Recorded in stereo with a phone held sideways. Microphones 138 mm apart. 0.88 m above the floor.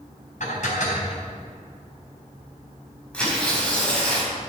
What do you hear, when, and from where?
0.4 s dishes clattering: 65° left (ahead or behind), 4 m
3.1 s tearing paper: 10° left (ahead or behind), 5 m